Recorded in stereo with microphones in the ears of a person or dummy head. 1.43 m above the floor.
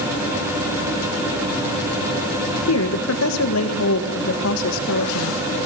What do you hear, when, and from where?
2.7 s a woman speaking: 85° left, 1.6 m